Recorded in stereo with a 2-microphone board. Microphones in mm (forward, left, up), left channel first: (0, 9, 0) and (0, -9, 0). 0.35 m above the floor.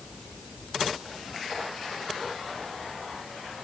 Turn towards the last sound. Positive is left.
No sound to turn to.